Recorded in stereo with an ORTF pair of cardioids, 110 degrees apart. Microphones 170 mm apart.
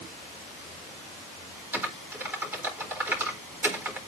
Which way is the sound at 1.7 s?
10° right.